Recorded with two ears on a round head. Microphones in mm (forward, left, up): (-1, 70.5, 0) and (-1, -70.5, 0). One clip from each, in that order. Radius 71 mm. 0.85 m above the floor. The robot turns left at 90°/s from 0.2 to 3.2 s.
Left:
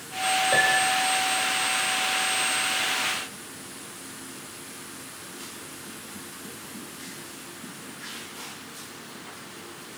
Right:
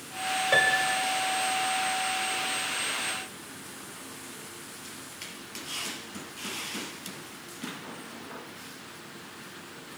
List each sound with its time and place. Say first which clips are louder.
0.5 s a piano: even; 60° right, 3 m; by 1.0 s 105° right, 3 m